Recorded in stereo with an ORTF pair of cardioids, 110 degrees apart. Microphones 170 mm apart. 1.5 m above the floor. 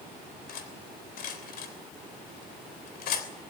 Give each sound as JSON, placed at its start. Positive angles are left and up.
{"t": 0.5, "sound": "cutlery clinking", "azimuth_deg": 65, "distance_m": 3.0}